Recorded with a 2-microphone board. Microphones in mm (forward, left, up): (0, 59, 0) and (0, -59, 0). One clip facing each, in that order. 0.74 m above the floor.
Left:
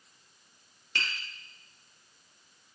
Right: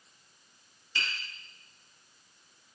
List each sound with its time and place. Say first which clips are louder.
0.9 s tapping: left 1 dB; 70° left (ahead or behind), 0.9 m